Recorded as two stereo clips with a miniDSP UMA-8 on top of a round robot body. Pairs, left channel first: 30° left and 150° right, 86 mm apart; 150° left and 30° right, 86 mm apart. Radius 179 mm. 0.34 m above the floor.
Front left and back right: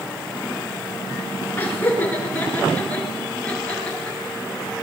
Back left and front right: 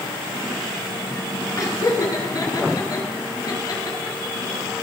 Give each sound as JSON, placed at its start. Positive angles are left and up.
{"t": 1.6, "sound": "laughter", "azimuth_deg": 100, "distance_m": 8.0}